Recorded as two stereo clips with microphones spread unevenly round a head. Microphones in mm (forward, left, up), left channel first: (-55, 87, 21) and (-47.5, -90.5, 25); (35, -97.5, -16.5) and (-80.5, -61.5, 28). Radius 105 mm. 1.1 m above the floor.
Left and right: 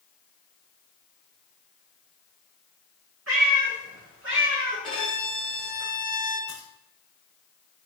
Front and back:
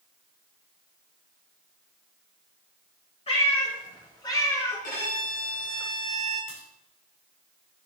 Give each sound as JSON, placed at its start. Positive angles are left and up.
{"t": 3.3, "sound": "a cat meowing", "azimuth_deg": -55, "distance_m": 4.0}
{"t": 4.8, "sound": "a violin", "azimuth_deg": 5, "distance_m": 4.5}
{"t": 6.5, "sound": "a crack", "azimuth_deg": -15, "distance_m": 4.0}